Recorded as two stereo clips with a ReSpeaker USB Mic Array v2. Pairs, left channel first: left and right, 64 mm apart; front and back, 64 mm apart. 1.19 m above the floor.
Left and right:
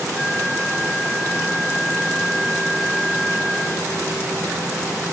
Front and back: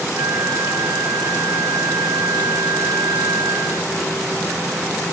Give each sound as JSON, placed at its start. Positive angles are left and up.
{"t": 0.1, "sound": "a flute", "azimuth_deg": -165, "distance_m": 1.0}